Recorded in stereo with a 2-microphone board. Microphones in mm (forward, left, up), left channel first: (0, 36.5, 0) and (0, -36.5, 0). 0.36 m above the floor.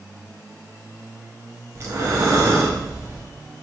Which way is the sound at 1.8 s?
45° right (ahead or behind).